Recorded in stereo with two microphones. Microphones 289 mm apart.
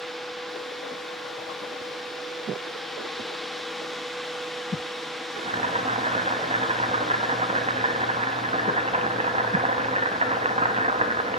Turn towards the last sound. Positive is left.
turn(degrees=-20)  # may be behind; listen again after turning